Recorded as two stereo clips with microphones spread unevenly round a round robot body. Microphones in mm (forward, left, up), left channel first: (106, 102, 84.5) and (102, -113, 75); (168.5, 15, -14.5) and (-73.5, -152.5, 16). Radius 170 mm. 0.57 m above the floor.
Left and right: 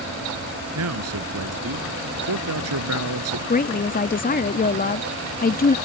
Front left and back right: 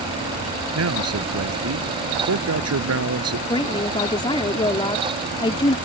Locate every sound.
0.8 s a man speaking: 105° right
3.5 s a woman speaking: 95° left